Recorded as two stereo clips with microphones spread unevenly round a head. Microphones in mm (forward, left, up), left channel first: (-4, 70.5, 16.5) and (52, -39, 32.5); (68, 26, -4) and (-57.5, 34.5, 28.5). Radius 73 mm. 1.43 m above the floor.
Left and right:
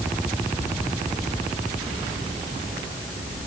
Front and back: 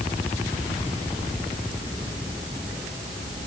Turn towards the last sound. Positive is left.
No sound to turn to.